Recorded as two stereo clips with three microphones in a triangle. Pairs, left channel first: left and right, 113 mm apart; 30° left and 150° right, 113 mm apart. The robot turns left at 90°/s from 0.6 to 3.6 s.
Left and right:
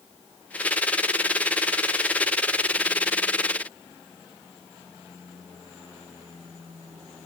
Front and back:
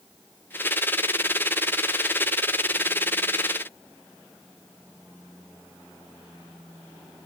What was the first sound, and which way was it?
Only background noise.